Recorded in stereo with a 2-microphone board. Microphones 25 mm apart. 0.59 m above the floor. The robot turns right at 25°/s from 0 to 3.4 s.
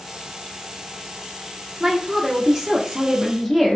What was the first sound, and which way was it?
A woman speaking, 40° right.